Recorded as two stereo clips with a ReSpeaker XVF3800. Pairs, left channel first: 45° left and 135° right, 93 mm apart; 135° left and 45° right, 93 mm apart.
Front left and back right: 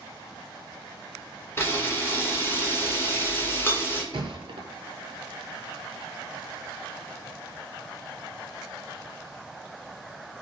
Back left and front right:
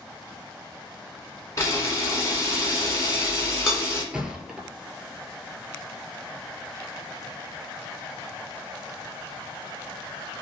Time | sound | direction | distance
1.6 | a camera shutter | 95° left | 1.1 m
4.1 | a thud | 125° right | 0.5 m